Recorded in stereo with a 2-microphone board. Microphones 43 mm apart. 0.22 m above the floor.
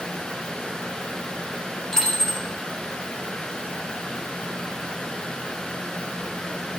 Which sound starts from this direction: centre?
A dropped coin, at 1.9 s.